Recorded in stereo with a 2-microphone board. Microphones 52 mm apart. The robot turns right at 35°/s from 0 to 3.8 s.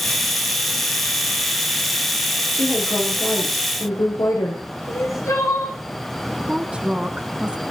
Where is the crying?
70° left (ahead or behind), 7.5 m.